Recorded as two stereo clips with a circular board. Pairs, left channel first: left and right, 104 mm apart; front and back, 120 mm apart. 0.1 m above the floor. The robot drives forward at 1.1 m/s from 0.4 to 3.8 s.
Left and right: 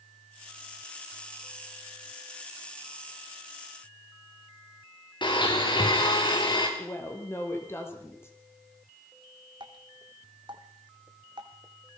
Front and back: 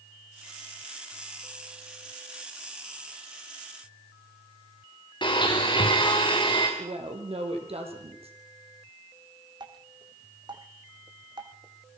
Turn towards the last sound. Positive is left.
turn(degrees=-130)